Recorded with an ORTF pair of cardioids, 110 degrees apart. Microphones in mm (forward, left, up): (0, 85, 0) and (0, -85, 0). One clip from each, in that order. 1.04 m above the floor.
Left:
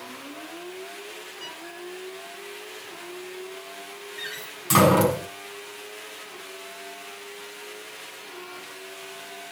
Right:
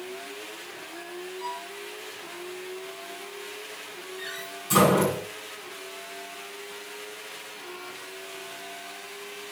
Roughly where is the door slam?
Ahead left.